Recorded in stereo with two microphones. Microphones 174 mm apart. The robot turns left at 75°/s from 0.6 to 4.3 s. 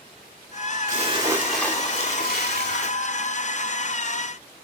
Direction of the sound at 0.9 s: 130° right.